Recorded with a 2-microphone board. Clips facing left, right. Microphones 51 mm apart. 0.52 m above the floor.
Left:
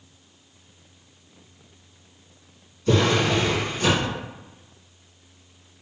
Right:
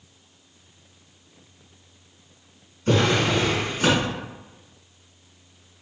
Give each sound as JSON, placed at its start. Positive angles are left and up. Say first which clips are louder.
{"t": 2.9, "sound": "a drawer", "louder": "even", "side_deg": -45, "distance_m": 1.8}